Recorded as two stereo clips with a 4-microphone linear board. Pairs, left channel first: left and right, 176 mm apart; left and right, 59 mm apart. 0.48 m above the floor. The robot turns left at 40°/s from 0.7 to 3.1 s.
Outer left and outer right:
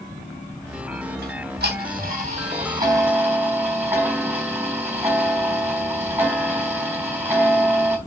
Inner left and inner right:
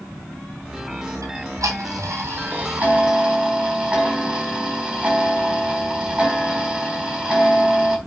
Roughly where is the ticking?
Right.